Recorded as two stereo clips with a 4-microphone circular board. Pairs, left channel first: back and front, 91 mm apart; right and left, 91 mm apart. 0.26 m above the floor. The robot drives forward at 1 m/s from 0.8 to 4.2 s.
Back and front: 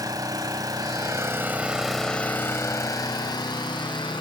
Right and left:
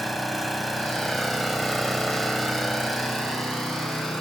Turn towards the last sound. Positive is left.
turn(degrees=180)